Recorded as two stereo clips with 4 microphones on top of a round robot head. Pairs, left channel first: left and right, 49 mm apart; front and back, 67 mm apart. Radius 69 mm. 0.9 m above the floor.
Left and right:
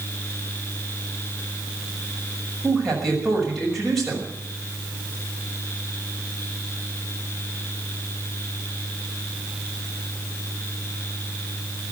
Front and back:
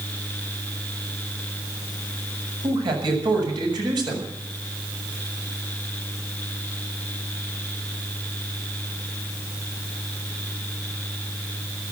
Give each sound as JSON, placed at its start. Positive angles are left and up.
{"t": 2.6, "sound": "a man speaking", "azimuth_deg": 175, "distance_m": 6.0}